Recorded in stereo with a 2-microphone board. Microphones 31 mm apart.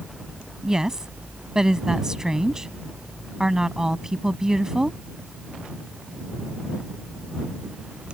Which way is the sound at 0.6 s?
20° right (ahead or behind).